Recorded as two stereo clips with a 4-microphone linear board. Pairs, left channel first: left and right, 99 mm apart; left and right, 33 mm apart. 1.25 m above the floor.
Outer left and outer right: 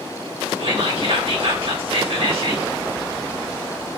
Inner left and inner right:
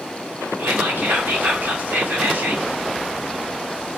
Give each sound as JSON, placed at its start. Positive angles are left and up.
{"t": 0.6, "sound": "whispering", "side_deg": -70, "distance_m": 3.0}